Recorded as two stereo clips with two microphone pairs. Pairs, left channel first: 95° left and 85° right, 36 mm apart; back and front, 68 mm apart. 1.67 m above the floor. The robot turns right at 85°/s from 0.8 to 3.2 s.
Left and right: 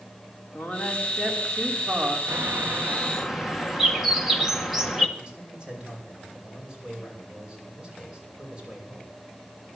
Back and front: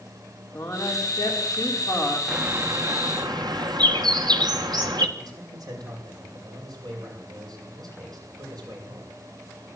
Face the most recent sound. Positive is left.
turn(degrees=-20)